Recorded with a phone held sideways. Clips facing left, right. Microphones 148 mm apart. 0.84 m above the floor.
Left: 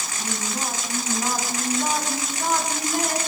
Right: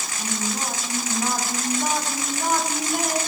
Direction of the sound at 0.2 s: 5° right (ahead or behind).